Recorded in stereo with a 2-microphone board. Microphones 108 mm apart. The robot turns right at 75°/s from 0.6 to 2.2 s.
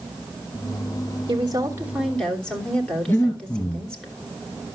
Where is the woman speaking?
60° right, 2.5 m; by 4.1 s 10° left, 2.5 m.